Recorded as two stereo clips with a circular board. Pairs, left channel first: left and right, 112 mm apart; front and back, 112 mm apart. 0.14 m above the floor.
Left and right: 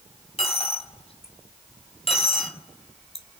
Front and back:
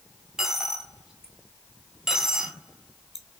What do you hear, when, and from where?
0.4 s a dropped coin: 95° left, 1.4 m